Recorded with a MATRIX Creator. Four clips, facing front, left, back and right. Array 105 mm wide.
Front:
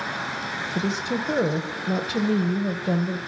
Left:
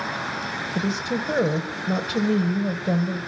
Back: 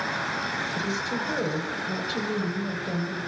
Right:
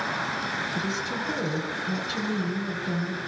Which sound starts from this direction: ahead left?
A woman speaking, at 0.8 s.